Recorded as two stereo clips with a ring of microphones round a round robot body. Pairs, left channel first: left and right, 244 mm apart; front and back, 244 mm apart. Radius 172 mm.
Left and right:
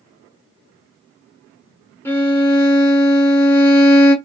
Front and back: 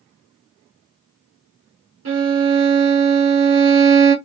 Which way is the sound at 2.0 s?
170° left.